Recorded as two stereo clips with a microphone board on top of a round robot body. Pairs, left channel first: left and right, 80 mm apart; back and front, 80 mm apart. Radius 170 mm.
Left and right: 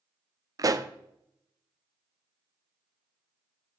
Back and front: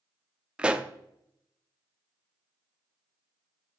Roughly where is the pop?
Right.